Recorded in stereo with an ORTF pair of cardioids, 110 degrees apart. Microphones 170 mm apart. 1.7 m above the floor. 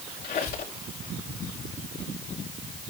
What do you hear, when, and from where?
0.2 s a squeak: 60° left, 5.5 m